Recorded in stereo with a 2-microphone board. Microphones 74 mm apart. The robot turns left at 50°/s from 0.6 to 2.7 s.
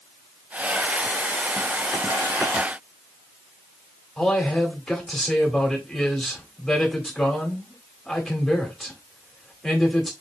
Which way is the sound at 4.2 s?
5° left (ahead or behind).